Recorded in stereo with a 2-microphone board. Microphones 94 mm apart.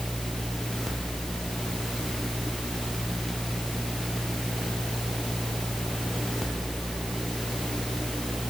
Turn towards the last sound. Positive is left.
No sound to turn to.